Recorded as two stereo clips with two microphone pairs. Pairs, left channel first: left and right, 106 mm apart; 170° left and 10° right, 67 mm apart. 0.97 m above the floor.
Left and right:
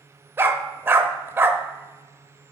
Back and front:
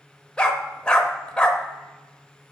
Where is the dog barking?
130° right, 0.7 m.